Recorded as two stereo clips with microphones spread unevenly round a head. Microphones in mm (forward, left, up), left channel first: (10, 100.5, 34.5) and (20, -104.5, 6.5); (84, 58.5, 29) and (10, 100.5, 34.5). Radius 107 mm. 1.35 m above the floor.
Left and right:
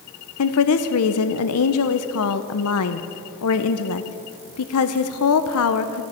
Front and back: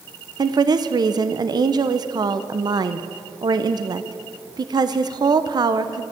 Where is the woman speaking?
110° left, 0.6 m.